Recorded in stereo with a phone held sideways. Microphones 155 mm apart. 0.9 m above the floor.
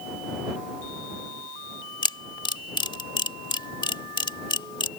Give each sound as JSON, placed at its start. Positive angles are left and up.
{"t": 2.0, "sound": "a camera shutter", "side_deg": 30}